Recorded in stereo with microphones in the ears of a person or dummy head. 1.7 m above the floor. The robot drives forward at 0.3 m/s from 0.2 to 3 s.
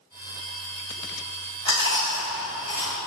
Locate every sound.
1.6 s chewing: 20° left (ahead or behind), 1.9 m; by 2.9 s 15° left (ahead or behind), 2 m